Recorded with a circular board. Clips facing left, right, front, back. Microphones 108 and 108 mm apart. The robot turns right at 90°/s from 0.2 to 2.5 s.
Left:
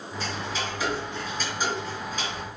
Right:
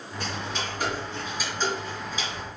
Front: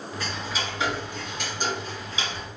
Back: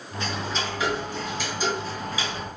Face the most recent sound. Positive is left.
turn(degrees=90)